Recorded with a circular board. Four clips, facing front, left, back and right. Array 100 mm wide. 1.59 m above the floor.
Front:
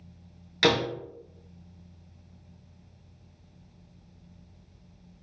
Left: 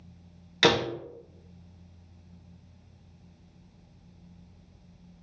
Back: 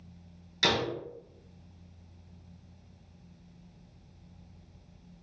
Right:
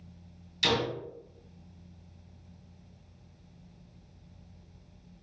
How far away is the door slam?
About 0.9 m.